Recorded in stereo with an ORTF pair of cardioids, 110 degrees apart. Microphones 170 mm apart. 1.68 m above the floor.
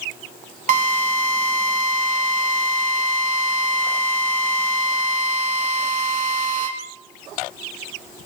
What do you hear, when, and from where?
0.7 s a drill: 50° right, 4.5 m